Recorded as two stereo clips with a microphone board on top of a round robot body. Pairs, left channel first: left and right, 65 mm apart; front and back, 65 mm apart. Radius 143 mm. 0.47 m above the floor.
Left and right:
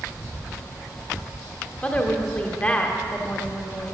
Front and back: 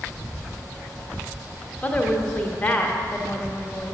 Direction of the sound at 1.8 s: 45° left.